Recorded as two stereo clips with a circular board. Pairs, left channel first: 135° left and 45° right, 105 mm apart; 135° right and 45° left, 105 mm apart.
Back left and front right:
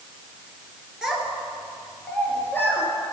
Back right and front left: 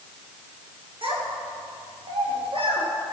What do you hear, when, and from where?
1.0 s a child speaking: 40° left, 1.7 m; by 2.9 s 70° left, 2.5 m